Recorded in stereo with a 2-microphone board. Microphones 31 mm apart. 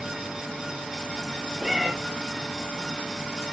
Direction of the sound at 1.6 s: 5° right (ahead or behind).